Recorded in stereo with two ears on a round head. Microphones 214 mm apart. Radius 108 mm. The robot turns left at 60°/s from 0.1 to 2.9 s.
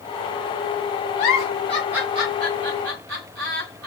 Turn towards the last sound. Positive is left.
turn(degrees=-65)  # may be behind; listen again after turning